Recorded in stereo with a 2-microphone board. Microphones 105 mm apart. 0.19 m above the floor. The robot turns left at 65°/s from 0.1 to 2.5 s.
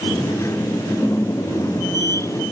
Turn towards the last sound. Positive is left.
No sound to turn to.